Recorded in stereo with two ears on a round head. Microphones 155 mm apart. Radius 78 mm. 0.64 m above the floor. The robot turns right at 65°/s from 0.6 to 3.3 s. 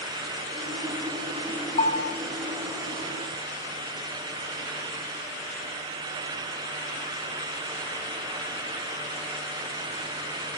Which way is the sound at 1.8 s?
35° left (ahead or behind).